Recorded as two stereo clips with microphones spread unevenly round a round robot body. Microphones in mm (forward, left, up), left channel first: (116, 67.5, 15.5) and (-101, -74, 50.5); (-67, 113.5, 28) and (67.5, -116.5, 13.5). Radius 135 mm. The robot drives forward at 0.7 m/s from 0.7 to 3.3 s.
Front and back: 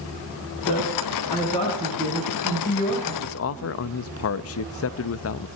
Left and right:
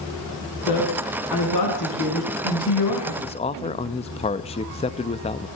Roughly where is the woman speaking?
Left.